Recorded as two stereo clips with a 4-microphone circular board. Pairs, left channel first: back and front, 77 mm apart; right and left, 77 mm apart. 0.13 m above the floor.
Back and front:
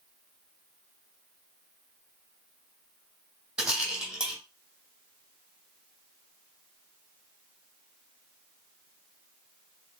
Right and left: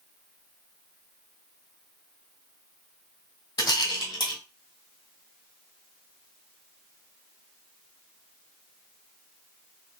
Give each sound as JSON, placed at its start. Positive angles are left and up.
{"t": 3.6, "sound": "a rattle", "azimuth_deg": -80, "distance_m": 1.6}